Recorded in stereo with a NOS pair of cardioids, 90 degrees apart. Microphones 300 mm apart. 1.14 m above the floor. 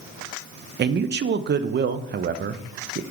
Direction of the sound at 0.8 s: 35° right.